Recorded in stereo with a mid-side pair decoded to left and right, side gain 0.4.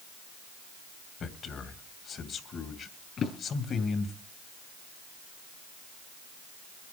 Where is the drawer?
65° left, 4.5 m.